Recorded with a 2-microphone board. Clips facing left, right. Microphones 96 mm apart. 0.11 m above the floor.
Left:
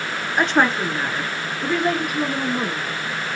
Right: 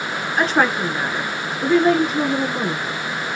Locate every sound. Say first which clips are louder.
0.4 s a woman speaking: even; centre (ahead or behind), 1.1 m; by 2.9 s 40° right (ahead or behind), 1.4 m